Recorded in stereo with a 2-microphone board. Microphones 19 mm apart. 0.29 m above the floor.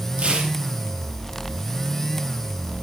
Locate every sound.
0.2 s tearing paper: 75° right (ahead or behind), 3.5 m